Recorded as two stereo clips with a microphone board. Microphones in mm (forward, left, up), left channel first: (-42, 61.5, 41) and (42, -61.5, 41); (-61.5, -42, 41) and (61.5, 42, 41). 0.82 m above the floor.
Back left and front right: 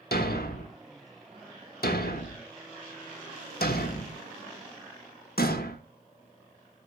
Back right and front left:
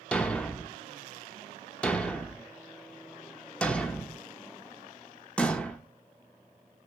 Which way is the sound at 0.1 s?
130° left.